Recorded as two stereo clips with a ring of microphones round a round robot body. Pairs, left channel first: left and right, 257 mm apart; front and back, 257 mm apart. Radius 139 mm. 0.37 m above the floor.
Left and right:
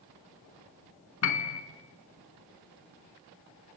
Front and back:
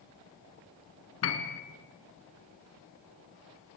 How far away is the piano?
About 1.3 m.